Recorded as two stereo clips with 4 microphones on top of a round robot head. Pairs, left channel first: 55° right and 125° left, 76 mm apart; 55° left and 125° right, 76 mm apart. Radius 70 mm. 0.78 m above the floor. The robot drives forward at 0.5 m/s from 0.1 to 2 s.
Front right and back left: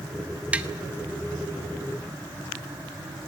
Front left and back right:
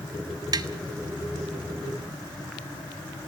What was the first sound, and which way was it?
Tapping, 160° right.